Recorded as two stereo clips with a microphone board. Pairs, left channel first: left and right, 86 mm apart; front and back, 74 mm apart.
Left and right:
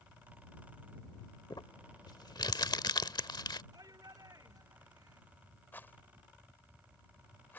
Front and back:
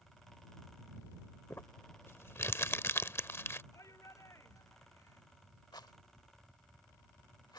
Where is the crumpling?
55° left.